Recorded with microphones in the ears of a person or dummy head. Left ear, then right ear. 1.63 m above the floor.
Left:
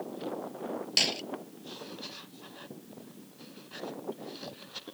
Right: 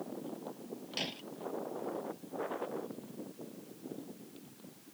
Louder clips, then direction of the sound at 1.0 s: Left 12 dB; 35° left (ahead or behind).